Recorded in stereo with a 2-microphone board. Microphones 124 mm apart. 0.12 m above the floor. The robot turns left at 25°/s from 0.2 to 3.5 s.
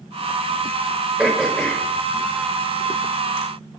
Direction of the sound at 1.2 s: 10° right (ahead or behind).